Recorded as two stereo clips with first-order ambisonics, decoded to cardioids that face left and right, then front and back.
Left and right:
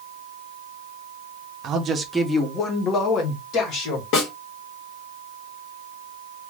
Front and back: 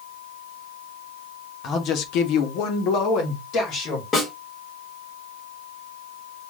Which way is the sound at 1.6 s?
45° right.